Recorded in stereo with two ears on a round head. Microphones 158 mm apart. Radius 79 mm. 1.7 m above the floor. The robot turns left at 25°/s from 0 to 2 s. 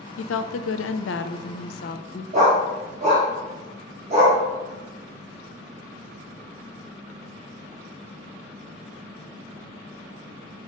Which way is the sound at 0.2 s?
95° left.